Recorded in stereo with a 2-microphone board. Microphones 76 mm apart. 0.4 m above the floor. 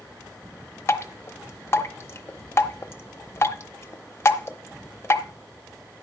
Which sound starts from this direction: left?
Dripping, at 0.9 s.